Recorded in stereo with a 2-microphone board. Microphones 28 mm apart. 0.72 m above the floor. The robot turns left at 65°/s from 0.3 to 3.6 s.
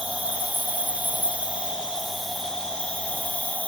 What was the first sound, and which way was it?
An insect, 55° right.